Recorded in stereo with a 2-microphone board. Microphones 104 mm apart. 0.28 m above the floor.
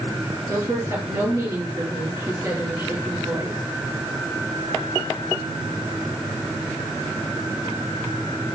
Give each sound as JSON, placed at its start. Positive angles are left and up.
{"t": 0.5, "sound": "a woman speaking", "side_deg": -30, "distance_m": 6.0}